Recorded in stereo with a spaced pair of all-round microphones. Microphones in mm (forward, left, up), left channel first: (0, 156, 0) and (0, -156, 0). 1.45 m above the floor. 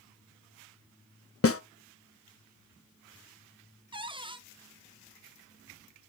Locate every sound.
1.4 s a snare drum: 45° left (ahead or behind), 0.5 m
3.9 s a cupboard door: 15° right (ahead or behind), 0.6 m